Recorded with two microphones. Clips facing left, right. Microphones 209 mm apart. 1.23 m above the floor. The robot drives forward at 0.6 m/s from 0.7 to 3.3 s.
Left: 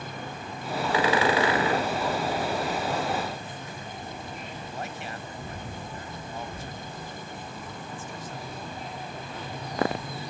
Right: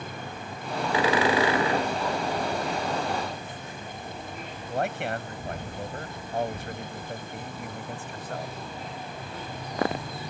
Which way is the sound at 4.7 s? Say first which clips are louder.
Right 11 dB; 70° right (ahead or behind).